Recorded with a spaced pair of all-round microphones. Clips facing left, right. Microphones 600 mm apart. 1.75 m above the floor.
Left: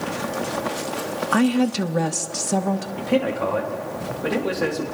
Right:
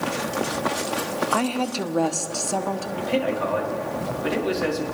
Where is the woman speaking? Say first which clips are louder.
Left 9 dB; 45° left (ahead or behind), 0.9 m.